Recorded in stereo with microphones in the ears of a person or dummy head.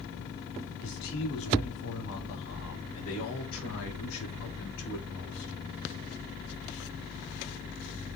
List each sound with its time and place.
0.8 s a man speaking: 85° left, 3.5 m